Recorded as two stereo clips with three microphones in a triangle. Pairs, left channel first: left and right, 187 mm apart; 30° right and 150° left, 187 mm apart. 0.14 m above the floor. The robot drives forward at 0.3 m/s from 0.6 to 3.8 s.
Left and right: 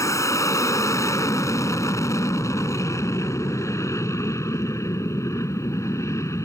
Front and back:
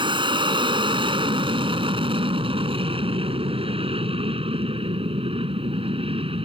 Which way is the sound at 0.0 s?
140° left.